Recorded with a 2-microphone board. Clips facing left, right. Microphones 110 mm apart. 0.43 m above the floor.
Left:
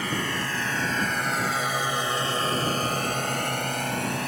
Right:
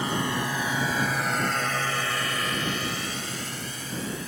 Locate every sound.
0.0 s a drone: 20° right (ahead or behind); by 4.3 s 65° left (ahead or behind)